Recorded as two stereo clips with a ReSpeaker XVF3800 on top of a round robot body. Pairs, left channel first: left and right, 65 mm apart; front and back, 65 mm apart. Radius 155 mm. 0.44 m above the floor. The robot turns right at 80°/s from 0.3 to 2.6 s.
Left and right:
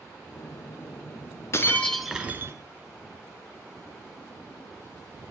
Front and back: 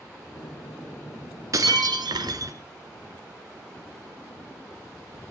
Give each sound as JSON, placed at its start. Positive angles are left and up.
{"t": 1.5, "sound": "breaking glass", "azimuth_deg": 140, "distance_m": 2.0}